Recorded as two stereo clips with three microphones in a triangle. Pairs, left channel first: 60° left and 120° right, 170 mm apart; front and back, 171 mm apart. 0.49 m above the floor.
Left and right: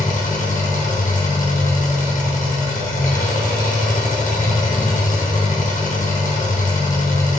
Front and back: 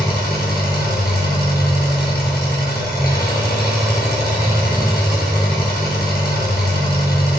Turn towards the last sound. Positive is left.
turn(degrees=20)